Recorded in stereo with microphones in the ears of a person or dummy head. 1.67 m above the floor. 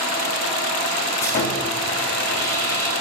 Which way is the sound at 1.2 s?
40° left (ahead or behind).